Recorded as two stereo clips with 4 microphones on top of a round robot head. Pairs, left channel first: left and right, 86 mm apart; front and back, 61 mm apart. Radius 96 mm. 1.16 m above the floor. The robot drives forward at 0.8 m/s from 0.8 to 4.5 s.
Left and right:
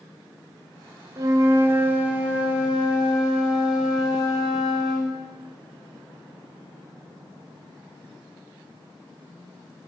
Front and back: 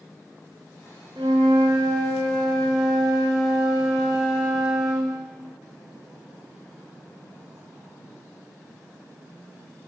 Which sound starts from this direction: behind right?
A flute, at 1.2 s.